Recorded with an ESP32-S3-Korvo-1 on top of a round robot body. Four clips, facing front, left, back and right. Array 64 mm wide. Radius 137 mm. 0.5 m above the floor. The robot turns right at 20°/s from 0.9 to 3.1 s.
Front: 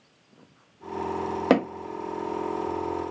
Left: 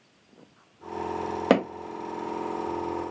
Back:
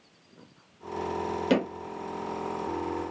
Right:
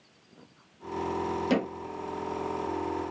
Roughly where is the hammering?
Ahead left.